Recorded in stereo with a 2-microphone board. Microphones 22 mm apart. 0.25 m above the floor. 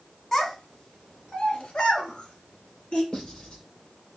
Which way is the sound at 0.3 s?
20° left (ahead or behind).